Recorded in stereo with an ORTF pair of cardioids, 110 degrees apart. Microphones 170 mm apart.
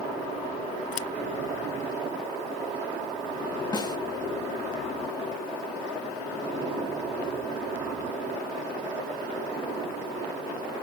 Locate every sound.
0.9 s scissors: 60° left
3.7 s a snare drum: 25° left